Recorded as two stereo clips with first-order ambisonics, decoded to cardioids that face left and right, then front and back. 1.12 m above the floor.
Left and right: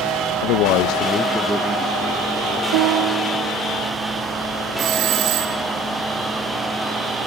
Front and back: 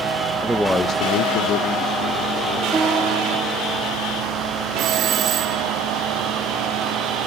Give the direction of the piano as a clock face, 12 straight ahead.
3 o'clock.